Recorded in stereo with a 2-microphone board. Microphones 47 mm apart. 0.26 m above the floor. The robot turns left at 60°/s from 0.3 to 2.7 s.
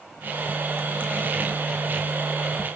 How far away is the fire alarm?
No fire alarm in this recording.